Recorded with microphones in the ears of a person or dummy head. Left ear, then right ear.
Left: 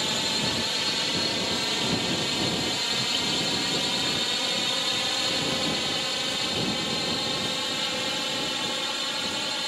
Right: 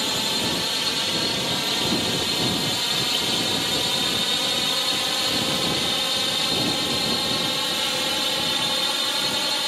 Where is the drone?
Centre (ahead or behind); by 9.7 s 10° right (ahead or behind).